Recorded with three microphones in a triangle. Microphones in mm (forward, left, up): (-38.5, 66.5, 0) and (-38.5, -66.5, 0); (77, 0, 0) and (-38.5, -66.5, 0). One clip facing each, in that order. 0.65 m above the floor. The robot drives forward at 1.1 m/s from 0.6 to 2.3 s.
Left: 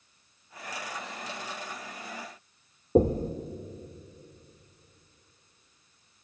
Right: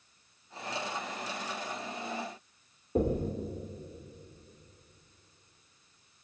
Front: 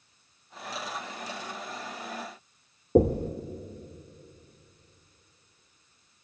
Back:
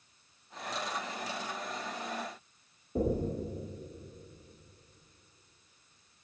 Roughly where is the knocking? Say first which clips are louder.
Left 6 dB, front 9 dB; ahead left.